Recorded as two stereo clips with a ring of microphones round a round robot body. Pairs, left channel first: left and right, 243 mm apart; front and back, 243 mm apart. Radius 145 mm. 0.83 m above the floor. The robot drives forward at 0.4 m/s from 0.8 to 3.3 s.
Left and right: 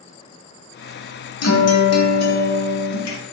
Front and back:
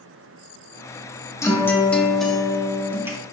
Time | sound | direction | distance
1.4 | a guitar | 75° left | 1.8 m